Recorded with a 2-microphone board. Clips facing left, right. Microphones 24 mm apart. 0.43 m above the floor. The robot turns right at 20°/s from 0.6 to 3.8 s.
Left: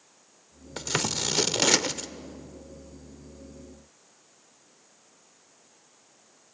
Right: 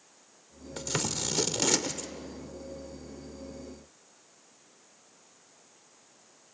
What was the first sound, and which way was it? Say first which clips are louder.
Scissors: left 4 dB; 25° left (ahead or behind).